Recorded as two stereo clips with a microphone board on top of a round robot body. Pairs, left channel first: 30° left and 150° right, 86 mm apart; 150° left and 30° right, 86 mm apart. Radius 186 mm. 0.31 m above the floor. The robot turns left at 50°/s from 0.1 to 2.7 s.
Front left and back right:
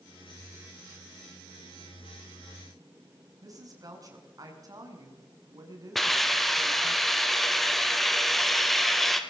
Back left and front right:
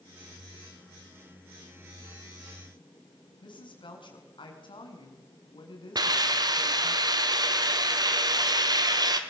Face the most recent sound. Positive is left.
turn(degrees=-55)